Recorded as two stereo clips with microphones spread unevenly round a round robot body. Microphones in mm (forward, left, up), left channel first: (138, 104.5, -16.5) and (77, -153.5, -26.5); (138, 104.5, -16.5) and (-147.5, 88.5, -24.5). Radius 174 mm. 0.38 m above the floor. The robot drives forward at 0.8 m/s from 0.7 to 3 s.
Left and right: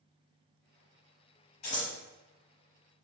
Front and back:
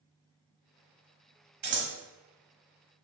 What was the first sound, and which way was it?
Scissors, 125° left.